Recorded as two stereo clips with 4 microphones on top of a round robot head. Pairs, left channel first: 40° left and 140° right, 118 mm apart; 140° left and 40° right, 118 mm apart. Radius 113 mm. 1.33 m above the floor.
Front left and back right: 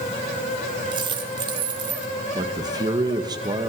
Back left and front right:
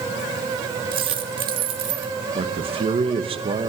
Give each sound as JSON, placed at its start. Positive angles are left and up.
{"t": 0.9, "sound": "a dropped coin", "azimuth_deg": -85, "distance_m": 1.3}
{"t": 2.4, "sound": "a man speaking", "azimuth_deg": -80, "distance_m": 2.0}